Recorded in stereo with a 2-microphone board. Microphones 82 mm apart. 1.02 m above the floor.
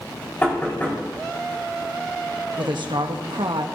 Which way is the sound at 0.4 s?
20° left (ahead or behind).